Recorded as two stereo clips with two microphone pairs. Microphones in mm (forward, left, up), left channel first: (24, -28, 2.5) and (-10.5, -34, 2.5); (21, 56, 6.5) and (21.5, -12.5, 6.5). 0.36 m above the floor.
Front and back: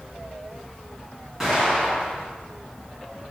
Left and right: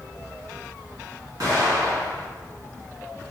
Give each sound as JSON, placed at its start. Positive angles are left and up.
{"t": 1.4, "sound": "an explosion", "azimuth_deg": -90, "distance_m": 1.8}